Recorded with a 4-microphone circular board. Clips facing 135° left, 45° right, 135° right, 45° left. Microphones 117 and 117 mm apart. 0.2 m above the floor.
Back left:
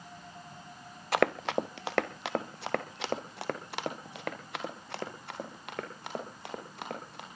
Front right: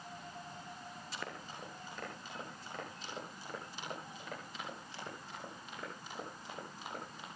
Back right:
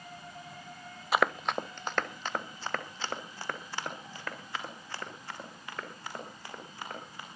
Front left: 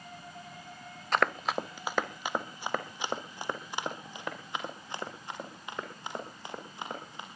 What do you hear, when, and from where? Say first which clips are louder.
1.1 s running footsteps: back left 21 dB, back right 1 dB; 145° left, 0.7 m; by 7.2 s 115° left, 7 m